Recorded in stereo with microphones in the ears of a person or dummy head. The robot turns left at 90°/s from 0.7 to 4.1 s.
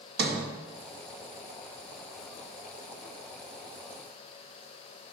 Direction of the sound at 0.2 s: 65° right (ahead or behind).